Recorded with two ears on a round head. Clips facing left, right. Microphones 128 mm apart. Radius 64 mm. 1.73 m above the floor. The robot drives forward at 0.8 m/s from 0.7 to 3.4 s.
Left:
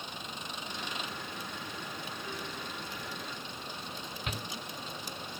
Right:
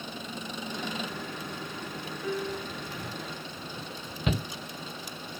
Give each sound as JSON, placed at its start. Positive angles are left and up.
{"t": 0.0, "sound": "an engine running", "side_deg": -80}
{"t": 2.2, "sound": "a piano", "side_deg": -75}
{"t": 4.3, "sound": "a shout", "side_deg": -65}